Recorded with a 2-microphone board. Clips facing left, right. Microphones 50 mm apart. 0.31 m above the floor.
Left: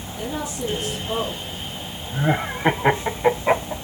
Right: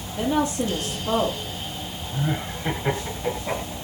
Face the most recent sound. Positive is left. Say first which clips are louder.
# left 6 dB
turn(degrees=50)  # may be behind; listen again after turning